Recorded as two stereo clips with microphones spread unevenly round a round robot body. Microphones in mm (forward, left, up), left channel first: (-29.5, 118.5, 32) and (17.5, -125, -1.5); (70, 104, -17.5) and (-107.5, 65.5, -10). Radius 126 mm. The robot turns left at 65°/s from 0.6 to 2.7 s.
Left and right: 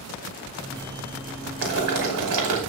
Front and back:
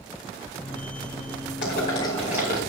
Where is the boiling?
35° right, 5 m; by 2.6 s 100° right, 5 m.